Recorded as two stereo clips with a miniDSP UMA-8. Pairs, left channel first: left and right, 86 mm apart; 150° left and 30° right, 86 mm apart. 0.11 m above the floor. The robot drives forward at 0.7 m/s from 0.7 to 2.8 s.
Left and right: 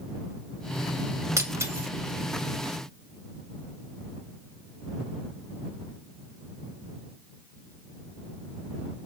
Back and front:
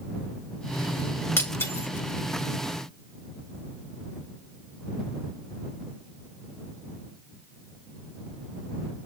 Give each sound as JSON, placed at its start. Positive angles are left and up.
{"t": 1.4, "sound": "breaking glass", "azimuth_deg": -145, "distance_m": 5.0}